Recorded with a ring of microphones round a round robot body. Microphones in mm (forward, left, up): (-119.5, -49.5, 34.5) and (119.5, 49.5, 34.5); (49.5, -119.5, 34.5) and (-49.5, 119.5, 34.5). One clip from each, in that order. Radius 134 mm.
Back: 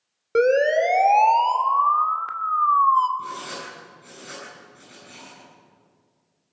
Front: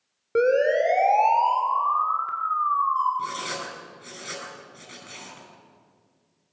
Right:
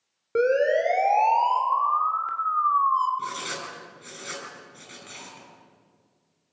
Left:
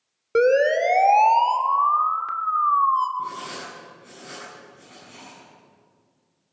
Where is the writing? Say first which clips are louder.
Front 2 dB, even; 40° right, 9 m.